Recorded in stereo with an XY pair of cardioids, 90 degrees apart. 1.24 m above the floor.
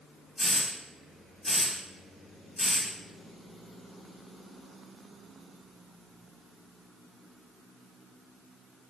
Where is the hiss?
20° left, 1.5 m.